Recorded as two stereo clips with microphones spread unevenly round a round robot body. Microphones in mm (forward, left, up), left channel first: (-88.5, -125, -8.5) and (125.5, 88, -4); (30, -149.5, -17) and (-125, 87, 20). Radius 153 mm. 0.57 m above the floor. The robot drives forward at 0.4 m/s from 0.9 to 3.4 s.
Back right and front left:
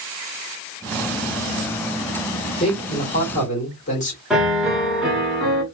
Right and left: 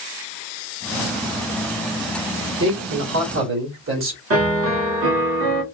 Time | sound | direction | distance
2.6 | a man speaking | 160° left | 1.5 m
4.3 | a piano | 135° left | 1.3 m